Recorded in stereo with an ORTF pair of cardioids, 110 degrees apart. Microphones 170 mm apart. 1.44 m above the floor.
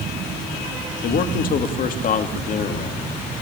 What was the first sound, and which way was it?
A man speaking, 60° left.